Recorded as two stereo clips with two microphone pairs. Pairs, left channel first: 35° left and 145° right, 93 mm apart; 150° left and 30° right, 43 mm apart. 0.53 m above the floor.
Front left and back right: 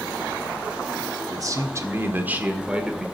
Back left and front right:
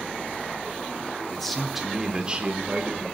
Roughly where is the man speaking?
Behind right.